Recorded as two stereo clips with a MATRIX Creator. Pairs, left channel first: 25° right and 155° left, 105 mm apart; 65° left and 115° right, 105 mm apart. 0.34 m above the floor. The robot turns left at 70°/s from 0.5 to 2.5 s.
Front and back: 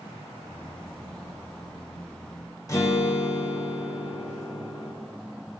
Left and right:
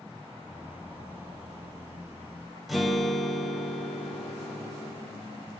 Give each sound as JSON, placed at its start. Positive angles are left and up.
{"t": 2.7, "sound": "a guitar", "azimuth_deg": -25, "distance_m": 1.6}